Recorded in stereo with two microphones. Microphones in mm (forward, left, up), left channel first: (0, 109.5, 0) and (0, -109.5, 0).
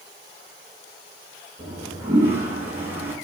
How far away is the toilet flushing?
About 2 m.